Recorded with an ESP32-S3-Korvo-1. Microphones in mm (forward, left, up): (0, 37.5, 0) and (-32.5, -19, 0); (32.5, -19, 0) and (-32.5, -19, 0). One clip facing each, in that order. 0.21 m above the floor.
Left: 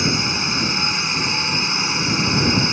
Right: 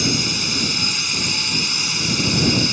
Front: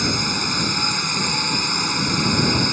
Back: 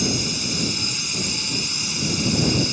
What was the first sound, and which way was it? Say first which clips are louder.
A drone: left 1 dB, front 2 dB; 10° left.